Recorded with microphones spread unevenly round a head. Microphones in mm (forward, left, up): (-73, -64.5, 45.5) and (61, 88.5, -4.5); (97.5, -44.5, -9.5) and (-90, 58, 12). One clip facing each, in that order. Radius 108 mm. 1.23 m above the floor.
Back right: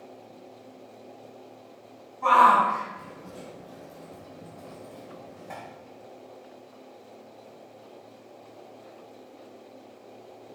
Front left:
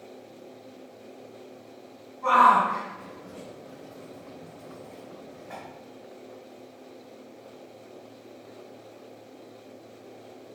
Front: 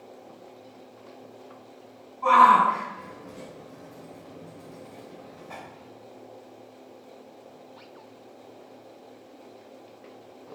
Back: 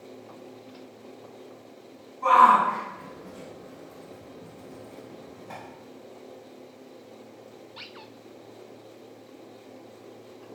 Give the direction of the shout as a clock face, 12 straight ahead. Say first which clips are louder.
Back right 1 dB, front 1 dB; 5 o'clock.